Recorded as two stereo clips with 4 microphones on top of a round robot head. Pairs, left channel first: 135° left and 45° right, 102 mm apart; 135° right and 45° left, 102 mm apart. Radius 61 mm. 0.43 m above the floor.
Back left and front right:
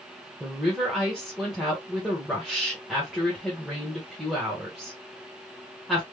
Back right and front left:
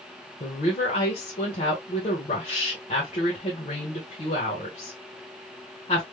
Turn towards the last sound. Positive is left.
turn(degrees=-135)